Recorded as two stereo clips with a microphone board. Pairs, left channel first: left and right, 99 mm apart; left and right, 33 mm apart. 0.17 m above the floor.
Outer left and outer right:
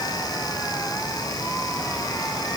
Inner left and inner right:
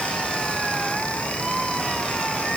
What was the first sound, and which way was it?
Only background noise.